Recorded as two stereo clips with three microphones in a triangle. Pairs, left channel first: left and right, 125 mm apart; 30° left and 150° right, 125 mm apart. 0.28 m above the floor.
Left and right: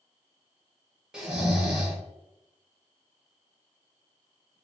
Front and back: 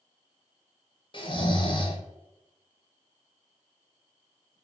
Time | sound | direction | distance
1.1 | snoring | 5° right | 0.7 m